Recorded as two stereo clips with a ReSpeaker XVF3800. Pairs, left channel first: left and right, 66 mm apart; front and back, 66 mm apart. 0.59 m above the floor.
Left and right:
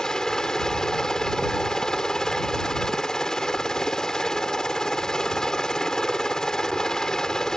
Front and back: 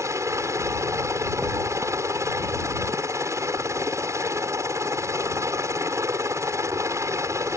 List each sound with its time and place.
0.0 s a helicopter: 170° left